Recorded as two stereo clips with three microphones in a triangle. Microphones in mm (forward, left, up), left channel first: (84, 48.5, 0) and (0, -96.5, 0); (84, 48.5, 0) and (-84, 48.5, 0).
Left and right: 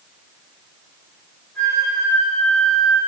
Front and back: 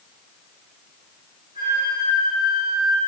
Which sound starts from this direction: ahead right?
A flute, at 1.6 s.